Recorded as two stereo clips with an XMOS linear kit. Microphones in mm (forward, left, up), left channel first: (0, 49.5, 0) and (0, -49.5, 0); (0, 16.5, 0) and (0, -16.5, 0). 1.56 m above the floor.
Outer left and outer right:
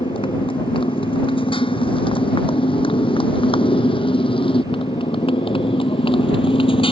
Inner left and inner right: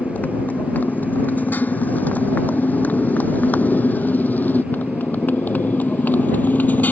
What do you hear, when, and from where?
0.0 s a motorcycle: 65° left (ahead or behind)